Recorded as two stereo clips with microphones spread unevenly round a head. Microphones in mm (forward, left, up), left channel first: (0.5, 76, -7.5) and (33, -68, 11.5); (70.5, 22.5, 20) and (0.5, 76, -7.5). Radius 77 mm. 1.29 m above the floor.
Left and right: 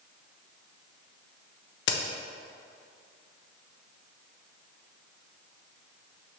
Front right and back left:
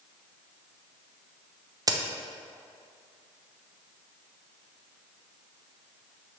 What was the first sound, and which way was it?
A crack, 95° left.